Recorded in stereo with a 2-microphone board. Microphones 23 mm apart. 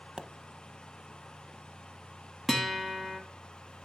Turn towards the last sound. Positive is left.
turn(degrees=-5)  # may be behind; listen again after turning